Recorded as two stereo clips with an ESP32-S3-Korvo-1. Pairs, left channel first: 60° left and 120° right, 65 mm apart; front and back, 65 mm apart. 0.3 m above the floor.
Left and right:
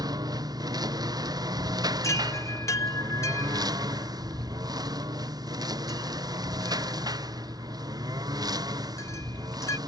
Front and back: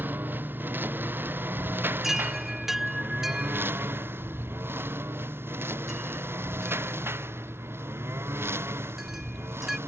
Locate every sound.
0.0 s a lawn mower: 120° right; by 9.9 s 130° right
2.0 s a chime: 95° left